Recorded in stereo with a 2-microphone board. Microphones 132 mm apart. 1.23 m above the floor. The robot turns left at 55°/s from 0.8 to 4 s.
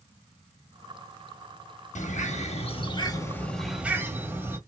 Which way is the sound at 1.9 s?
95° left.